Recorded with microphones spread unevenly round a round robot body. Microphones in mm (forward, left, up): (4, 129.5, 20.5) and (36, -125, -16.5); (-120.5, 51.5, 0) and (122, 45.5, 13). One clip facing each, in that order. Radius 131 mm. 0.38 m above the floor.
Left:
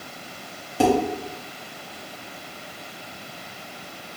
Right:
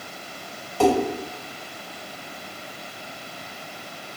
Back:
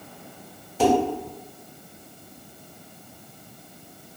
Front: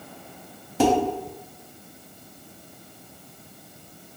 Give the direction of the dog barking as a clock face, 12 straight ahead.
No dog barking in this recording.